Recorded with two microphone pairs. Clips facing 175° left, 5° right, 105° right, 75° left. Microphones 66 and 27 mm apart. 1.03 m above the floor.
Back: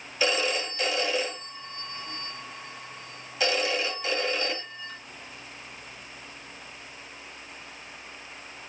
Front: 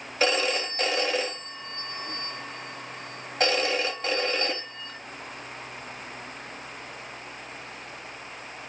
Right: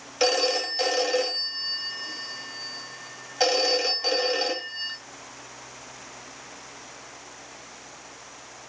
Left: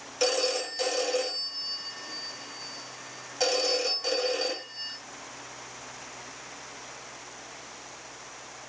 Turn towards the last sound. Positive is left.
turn(degrees=-45)